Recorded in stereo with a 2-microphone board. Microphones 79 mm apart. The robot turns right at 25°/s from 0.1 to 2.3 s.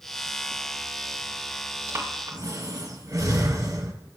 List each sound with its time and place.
1.9 s breathing: 30° right (ahead or behind), 2.5 m; by 3.9 s 40° right (ahead or behind), 2.5 m